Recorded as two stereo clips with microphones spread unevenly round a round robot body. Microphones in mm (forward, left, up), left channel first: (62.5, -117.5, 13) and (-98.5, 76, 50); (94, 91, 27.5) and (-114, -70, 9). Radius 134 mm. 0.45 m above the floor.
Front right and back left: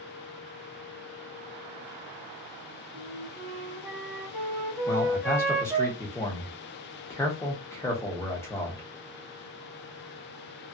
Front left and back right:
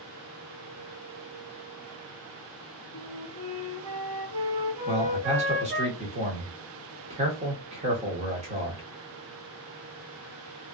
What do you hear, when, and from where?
2.9 s a flute: 140° right, 1.7 m
4.9 s a man speaking: 105° right, 1.0 m